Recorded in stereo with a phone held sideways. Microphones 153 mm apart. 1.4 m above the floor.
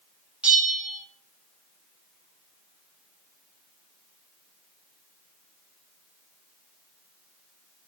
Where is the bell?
10° right (ahead or behind), 0.6 m.